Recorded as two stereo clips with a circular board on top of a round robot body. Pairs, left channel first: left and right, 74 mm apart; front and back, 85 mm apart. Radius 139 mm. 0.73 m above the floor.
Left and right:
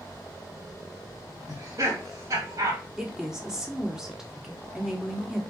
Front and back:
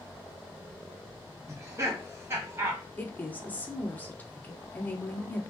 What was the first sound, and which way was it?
Laughter, 125° right.